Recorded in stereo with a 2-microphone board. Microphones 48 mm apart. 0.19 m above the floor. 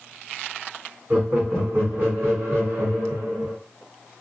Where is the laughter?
40° right (ahead or behind), 1.5 m; by 3.5 s 60° right (ahead or behind), 2.5 m.